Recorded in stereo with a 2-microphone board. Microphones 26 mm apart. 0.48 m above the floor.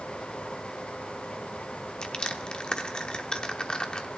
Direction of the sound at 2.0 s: 30° left (ahead or behind).